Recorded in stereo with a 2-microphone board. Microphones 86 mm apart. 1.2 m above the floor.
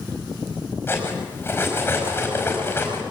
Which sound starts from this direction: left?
Cutlery clinking, at 0.9 s.